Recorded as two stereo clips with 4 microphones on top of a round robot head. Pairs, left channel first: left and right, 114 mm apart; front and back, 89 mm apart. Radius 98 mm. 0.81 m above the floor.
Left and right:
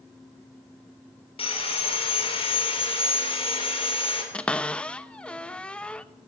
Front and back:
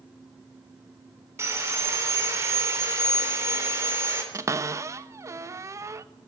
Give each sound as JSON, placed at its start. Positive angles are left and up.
{"t": 1.4, "sound": "sawing", "azimuth_deg": 120, "distance_m": 3.5}
{"t": 4.3, "sound": "a cupboard door", "azimuth_deg": 165, "distance_m": 0.9}